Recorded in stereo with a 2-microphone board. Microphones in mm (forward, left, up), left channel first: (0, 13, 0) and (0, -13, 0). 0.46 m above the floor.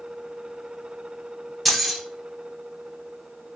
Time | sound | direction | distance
1.6 | keys jangling | centre (ahead or behind) | 0.7 m